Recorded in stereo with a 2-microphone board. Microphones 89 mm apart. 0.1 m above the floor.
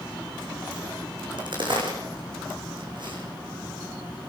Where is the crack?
60° right (ahead or behind), 6.5 m.